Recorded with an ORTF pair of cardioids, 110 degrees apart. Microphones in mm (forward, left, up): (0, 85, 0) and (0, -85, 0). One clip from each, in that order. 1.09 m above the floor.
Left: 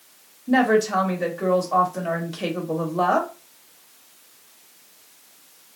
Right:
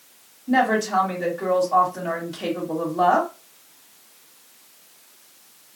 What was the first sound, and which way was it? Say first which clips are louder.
A woman speaking: left 1 dB; 15° left.